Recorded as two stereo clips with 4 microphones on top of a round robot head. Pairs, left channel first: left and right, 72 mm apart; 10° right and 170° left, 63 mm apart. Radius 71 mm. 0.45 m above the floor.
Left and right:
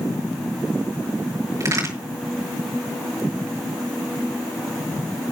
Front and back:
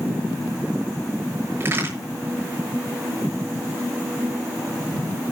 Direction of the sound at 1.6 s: 130° right.